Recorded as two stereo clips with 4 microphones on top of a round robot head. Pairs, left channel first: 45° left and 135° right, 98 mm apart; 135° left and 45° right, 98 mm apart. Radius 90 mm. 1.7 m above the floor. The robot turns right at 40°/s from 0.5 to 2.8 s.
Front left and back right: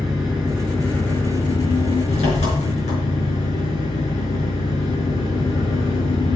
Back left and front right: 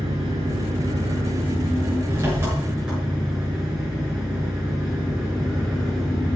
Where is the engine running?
55° right, 5.5 m; by 6.4 s 35° left, 5.5 m.